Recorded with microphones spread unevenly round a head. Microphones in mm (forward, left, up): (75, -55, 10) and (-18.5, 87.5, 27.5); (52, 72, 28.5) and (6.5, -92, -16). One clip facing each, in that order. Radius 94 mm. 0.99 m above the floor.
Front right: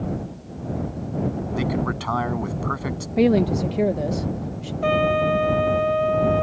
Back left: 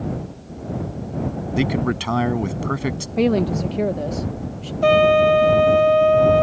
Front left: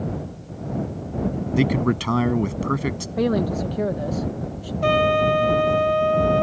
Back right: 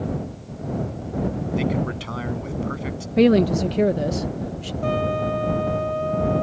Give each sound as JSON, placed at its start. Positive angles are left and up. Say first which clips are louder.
{"t": 1.6, "sound": "a man speaking", "louder": "back left 6 dB, front left 6 dB", "azimuth_deg": 65}
{"t": 3.2, "sound": "a woman speaking", "louder": "front right 1 dB, back right 6 dB", "azimuth_deg": -130}
{"t": 4.8, "sound": "a trumpet", "louder": "back left 6 dB, front left 5 dB", "azimuth_deg": 85}